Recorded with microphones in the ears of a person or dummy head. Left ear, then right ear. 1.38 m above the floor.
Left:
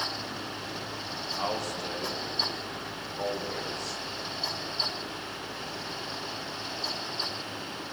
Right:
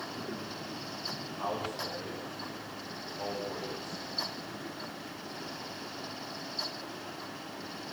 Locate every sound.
1.4 s a man speaking: 60° left (ahead or behind), 7.5 m; by 4.0 s 85° left, 6.5 m